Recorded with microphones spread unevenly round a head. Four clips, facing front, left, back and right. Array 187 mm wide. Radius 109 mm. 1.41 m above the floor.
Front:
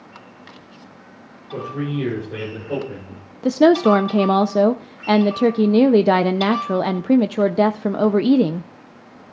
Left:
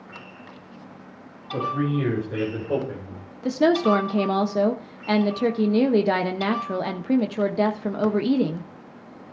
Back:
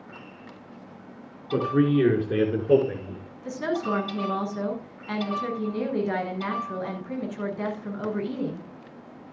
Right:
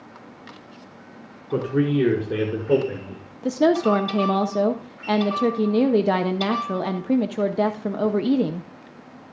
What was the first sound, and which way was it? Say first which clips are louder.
A man speaking: right 4 dB, back 5 dB; 125° right.